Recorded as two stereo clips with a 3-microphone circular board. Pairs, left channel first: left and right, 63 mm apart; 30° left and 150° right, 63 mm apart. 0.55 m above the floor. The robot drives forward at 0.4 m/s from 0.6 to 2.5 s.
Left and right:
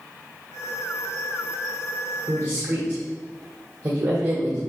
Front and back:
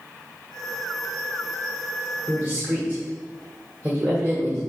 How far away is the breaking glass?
I don't hear breaking glass.